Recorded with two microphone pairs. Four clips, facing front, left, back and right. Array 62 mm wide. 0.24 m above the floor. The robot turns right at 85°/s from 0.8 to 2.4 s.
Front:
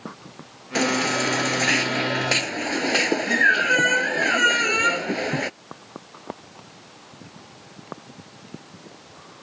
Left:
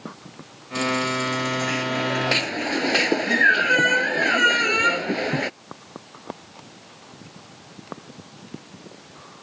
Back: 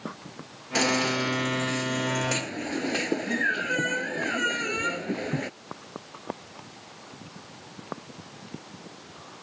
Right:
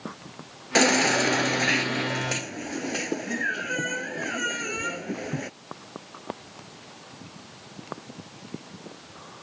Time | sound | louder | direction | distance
0.8 | a baby crying | right 3 dB, front 3 dB | 90° right | ?